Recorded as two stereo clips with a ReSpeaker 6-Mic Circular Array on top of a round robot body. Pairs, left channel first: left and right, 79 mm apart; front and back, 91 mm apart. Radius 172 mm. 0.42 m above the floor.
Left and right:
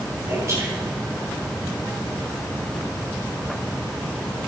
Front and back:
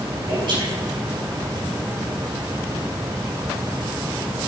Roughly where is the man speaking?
Behind right.